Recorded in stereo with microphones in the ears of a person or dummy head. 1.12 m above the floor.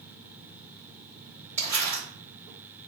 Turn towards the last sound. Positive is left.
turn(degrees=-15)  # may be behind; listen again after turning